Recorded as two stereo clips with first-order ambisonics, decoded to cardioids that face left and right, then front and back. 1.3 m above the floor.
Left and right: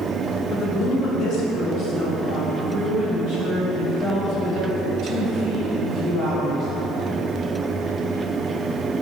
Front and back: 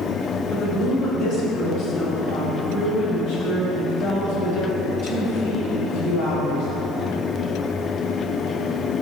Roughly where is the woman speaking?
Ahead left.